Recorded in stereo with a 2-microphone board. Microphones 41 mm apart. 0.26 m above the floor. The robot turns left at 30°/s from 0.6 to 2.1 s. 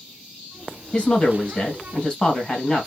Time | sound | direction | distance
0.9 | a woman speaking | 25° left (ahead or behind) | 1.6 m